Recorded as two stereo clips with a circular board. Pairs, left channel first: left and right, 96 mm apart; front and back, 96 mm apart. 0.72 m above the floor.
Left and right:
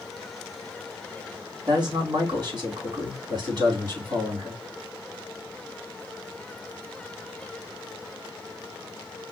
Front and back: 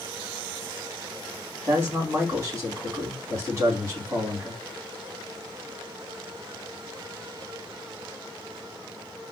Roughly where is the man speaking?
Behind right.